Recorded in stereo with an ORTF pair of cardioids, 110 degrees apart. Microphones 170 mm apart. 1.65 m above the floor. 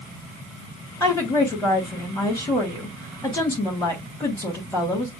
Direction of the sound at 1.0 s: 15° left.